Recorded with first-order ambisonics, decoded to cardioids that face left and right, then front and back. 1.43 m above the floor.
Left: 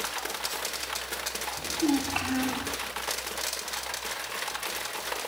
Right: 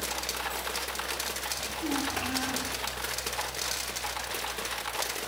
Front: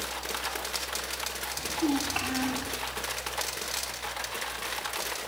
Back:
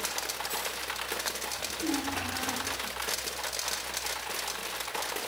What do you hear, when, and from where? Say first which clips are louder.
1.6 s a child speaking: left 7 dB, front 8 dB; 50° left, 3 m